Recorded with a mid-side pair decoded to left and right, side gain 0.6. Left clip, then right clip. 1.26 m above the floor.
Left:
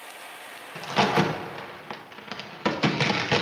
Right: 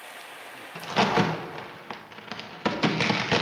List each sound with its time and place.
0.8 s a crack: 5° right, 1.0 m